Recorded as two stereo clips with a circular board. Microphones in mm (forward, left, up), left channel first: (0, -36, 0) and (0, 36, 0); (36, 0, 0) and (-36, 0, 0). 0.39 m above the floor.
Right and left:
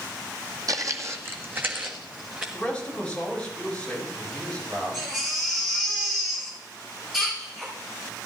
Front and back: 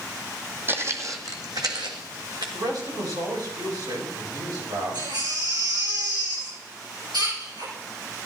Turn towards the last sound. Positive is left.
turn(degrees=175)